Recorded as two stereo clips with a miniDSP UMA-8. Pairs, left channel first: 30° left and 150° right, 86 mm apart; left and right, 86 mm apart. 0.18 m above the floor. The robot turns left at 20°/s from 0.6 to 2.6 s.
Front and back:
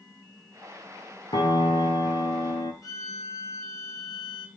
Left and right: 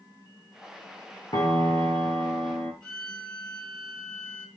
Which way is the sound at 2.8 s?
15° left.